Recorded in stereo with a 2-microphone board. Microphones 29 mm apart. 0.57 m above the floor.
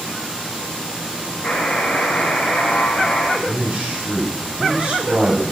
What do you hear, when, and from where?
1.4 s a buzzer: 65° left (ahead or behind), 2.5 m
3.5 s a man speaking: 30° right (ahead or behind), 2.5 m